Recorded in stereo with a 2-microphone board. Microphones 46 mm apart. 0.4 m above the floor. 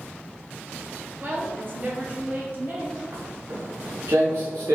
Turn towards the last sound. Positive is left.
turn(degrees=-70)  # may be behind; listen again after turning